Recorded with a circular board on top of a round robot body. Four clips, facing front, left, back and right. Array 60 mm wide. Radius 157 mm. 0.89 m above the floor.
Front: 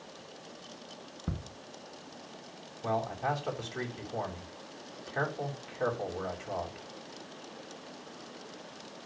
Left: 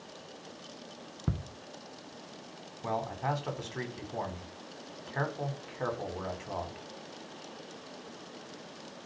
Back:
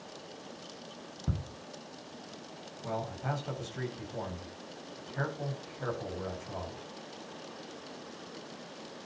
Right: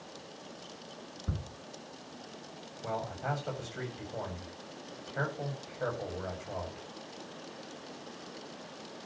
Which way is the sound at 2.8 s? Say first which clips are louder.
Left 3 dB, front 5 dB; 50° left.